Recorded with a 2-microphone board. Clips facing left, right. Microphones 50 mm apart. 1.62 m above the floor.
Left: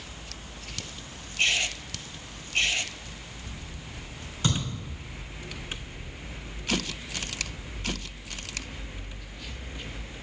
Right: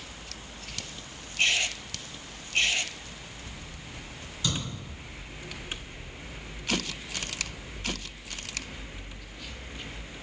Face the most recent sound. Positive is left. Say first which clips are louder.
# left 3 dB
turn(degrees=50)  # may be behind; listen again after turning